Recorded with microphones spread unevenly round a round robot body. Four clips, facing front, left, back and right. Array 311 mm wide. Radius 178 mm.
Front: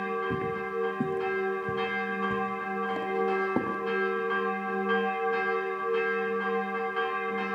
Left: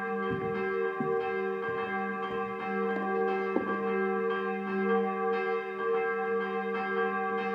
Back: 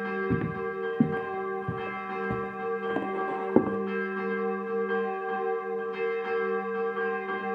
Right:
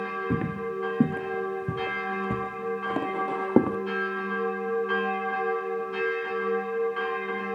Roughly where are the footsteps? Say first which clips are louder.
Right 1 dB, back 1 dB; behind right.